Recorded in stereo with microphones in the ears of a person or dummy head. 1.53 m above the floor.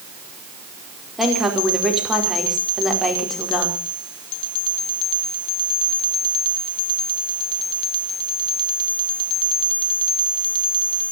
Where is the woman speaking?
5° right (ahead or behind), 4.5 m.